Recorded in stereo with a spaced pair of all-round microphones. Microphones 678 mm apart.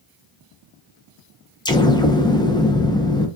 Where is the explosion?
5° left (ahead or behind), 0.9 m.